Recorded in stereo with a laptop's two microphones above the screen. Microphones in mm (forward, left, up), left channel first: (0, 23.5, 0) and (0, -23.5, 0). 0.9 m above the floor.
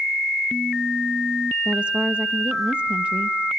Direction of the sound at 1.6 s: 25° right (ahead or behind).